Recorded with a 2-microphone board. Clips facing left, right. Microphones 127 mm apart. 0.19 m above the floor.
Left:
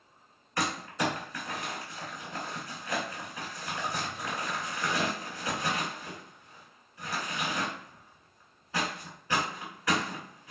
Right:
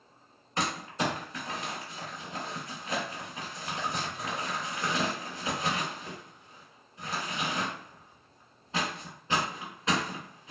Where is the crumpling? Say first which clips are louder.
Even; 25° right (ahead or behind), 1.1 m.